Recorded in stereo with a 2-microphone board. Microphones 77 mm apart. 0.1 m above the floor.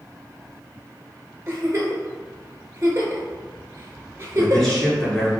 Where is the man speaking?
10° left (ahead or behind), 1.3 m.